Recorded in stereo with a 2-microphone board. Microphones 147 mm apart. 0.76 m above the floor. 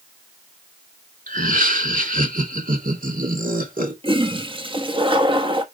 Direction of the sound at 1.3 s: 70° right (ahead or behind).